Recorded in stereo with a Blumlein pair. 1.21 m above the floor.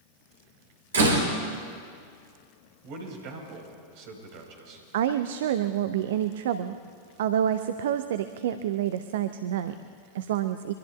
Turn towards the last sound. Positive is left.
turn(degrees=-55)